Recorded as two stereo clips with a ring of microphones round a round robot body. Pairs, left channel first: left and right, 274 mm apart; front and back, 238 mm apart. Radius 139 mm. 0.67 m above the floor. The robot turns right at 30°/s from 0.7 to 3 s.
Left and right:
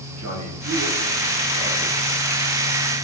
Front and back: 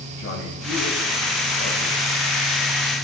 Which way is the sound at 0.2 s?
55° right.